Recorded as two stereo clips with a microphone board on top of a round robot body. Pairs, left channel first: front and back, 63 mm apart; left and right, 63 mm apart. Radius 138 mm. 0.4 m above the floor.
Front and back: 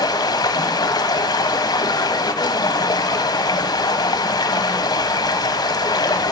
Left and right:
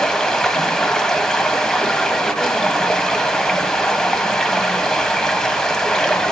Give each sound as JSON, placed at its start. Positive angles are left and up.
{"t": 0.0, "sound": "running water", "azimuth_deg": 10, "distance_m": 1.0}